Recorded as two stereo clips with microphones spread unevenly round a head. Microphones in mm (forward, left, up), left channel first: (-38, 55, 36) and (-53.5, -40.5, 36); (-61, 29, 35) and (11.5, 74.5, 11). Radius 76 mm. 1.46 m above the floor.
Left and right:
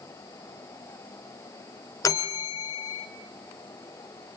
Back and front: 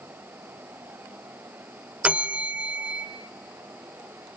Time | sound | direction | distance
2.0 | a bell | 120° left | 1.5 m